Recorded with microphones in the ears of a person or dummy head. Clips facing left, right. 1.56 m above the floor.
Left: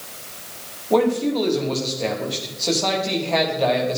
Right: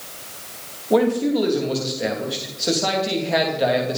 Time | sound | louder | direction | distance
0.9 | a man speaking | right 1 dB | 10° right (ahead or behind) | 3 m